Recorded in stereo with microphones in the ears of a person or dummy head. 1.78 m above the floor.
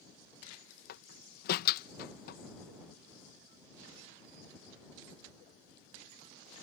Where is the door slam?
55° left (ahead or behind).